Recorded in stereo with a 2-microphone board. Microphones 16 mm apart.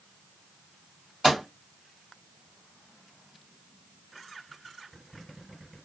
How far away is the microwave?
About 1.5 m.